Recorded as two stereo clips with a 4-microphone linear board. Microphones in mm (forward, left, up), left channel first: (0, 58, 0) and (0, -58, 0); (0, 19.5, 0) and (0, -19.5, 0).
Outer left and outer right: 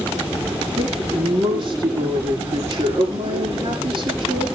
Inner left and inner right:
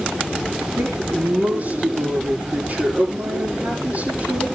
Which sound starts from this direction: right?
A woman speaking, at 0.8 s.